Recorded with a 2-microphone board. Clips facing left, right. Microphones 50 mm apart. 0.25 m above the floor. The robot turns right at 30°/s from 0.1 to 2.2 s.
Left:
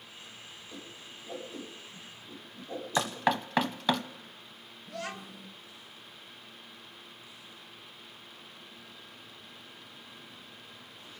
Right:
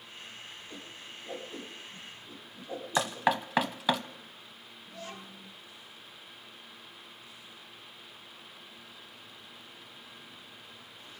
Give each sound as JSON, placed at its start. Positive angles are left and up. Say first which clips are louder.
{"t": 0.7, "sound": "a whoosh", "louder": "right 1 dB", "side_deg": -65, "distance_m": 8.0}
{"t": 3.0, "sound": "knocking", "louder": "right 1 dB", "side_deg": -5, "distance_m": 0.9}
{"t": 4.9, "sound": "a child speaking", "louder": "left 5 dB", "side_deg": 70, "distance_m": 3.0}